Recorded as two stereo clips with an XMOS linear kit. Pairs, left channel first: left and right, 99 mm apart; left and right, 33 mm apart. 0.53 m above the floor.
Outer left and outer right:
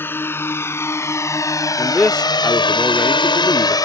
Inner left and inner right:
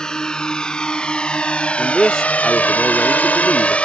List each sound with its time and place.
0.0 s a drone: 20° left (ahead or behind); by 3.9 s 40° left (ahead or behind)
1.8 s a man speaking: 10° left (ahead or behind)